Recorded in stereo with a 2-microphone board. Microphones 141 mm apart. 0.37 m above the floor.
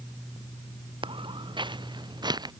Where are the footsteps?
40° right (ahead or behind); by 2.5 s 30° right (ahead or behind).